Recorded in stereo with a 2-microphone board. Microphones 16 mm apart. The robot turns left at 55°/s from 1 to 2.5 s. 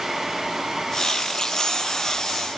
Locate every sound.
Only background noise.